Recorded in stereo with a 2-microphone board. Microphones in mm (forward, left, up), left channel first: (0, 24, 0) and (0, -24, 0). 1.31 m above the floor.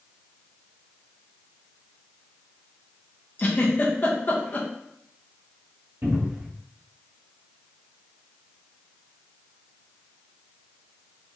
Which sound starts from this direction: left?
A giggle, at 3.4 s.